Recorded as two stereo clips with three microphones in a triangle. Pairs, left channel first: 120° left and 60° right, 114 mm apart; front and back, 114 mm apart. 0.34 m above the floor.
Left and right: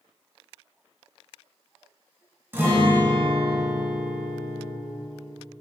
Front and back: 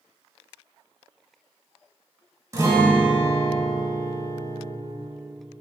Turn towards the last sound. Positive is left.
turn(degrees=-125)